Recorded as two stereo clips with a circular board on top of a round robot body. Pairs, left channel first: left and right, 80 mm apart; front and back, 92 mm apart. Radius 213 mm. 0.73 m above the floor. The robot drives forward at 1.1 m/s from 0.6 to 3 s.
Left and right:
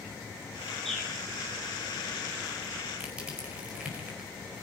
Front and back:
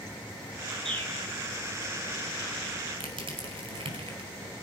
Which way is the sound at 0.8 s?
175° left.